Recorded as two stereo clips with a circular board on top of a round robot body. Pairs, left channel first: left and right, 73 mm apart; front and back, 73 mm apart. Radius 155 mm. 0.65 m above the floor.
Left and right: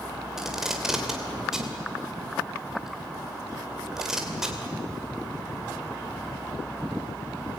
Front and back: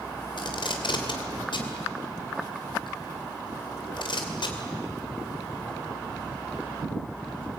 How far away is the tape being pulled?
About 3 m.